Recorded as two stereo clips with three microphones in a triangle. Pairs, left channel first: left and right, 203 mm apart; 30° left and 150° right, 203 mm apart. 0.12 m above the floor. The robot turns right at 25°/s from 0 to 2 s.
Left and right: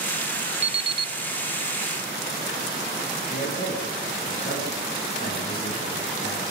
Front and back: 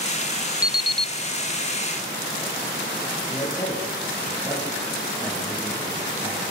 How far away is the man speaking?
About 8 m.